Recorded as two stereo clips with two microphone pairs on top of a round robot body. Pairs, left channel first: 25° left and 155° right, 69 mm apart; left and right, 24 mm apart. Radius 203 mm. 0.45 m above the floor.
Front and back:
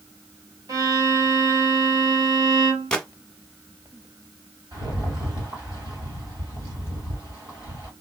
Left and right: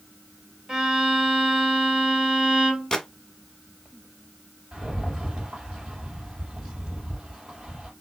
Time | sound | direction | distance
0.7 | a violin | 150° right | 2 m
2.9 | a gunshot | 90° left | 1.4 m
4.7 | a rattle | 145° right | 2.5 m